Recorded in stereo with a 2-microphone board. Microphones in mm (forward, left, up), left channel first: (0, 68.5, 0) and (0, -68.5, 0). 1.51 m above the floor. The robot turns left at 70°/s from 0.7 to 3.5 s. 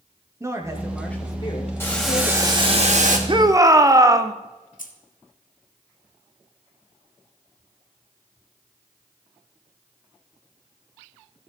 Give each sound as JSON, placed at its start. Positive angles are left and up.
{"t": 0.4, "sound": "a woman speaking", "azimuth_deg": -160, "distance_m": 1.9}
{"t": 1.8, "sound": "boiling", "azimuth_deg": 20, "distance_m": 1.8}
{"t": 3.3, "sound": "a shout", "side_deg": -40, "distance_m": 0.8}
{"t": 4.8, "sound": "keys jangling", "side_deg": 75, "distance_m": 1.5}